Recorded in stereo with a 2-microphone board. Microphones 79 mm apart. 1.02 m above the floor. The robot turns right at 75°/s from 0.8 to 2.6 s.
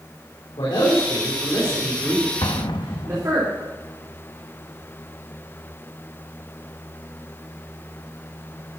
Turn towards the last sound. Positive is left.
turn(degrees=75)  # may be behind; listen again after turning